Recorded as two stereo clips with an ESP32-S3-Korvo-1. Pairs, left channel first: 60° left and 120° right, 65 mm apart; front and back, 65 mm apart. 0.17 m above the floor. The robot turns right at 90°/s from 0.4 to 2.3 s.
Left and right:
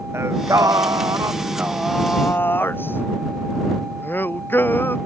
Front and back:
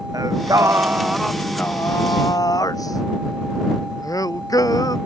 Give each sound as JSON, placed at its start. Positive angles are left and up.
{"t": 0.1, "sound": "singing", "azimuth_deg": -165}